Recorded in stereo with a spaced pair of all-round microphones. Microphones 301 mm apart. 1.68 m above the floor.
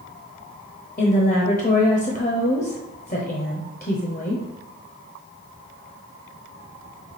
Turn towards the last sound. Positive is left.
turn(degrees=30)  # may be behind; listen again after turning